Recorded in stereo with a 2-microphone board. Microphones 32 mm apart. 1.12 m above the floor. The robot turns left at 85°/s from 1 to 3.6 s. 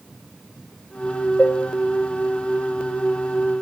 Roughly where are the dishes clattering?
Left.